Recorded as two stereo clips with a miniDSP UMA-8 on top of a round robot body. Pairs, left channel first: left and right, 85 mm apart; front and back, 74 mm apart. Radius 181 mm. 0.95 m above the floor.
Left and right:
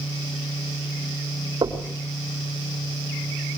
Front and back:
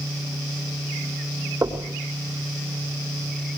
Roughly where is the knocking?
Behind right.